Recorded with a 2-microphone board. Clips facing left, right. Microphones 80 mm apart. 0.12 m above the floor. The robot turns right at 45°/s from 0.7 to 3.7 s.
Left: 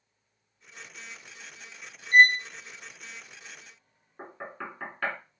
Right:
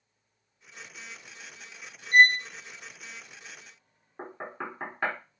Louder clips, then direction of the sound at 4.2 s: Right 2 dB; 20° right (ahead or behind).